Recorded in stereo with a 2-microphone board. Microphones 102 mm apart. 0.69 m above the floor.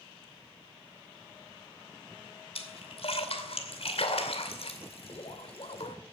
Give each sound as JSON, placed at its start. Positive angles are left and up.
{"t": 2.5, "sound": "a splash", "side_deg": 70, "distance_m": 2.5}